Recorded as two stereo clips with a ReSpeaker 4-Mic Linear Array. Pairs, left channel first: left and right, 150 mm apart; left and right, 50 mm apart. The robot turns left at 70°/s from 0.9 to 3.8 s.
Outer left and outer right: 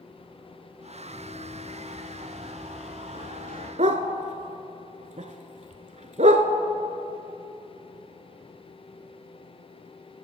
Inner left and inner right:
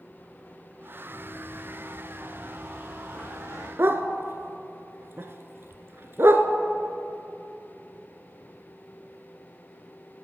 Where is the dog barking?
55° right (ahead or behind), 0.7 m.